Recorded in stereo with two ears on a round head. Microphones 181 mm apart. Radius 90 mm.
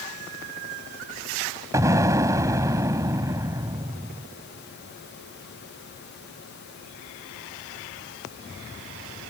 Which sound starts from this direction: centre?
An explosion, at 1.7 s.